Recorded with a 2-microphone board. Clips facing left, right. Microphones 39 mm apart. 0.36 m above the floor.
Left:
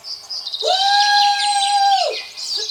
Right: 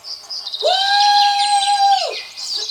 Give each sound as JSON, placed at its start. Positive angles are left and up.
{"t": 0.6, "sound": "a shout", "side_deg": -20, "distance_m": 0.9}